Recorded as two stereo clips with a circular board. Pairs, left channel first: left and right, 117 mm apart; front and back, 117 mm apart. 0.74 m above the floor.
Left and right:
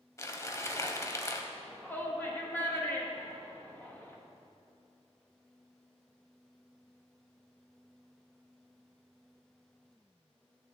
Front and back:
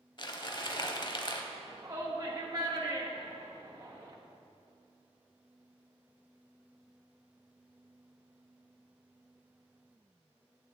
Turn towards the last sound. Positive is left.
turn(degrees=150)